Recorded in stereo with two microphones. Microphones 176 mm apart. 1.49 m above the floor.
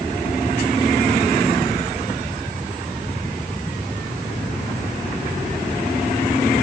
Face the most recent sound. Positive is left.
No sound to turn to.